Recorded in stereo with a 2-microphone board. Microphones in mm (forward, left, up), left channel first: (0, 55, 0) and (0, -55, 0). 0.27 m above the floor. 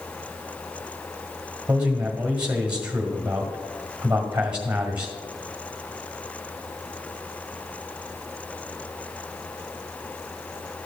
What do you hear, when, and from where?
1.7 s a man speaking: 10° right (ahead or behind), 1.7 m